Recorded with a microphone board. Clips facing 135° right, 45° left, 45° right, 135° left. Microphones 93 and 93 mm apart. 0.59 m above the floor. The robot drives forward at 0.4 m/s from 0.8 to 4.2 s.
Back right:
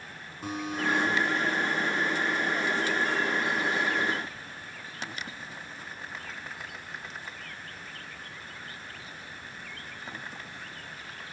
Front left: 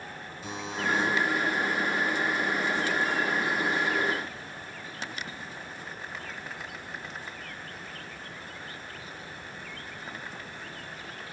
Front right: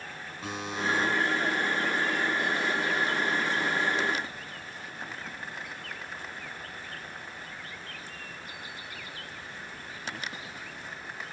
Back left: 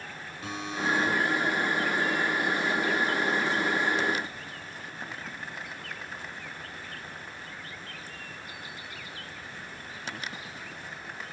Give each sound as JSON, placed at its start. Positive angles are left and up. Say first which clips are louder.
{"t": 0.4, "sound": "a buzzer", "louder": "back right 2 dB, back left 1 dB", "azimuth_deg": -100, "distance_m": 4.0}